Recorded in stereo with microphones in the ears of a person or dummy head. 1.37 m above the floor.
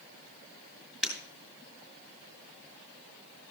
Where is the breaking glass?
Centre (ahead or behind), 3.5 m.